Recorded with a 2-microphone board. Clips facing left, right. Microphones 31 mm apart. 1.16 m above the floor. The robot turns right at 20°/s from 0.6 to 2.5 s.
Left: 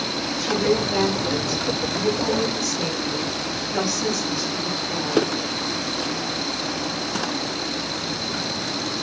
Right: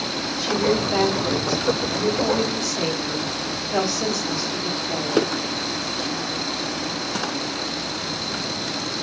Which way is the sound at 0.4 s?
165° right.